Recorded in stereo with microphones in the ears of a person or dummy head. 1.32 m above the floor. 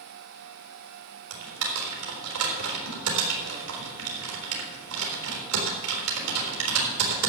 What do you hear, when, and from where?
1.3 s typing on a keyboard: 80° right, 4 m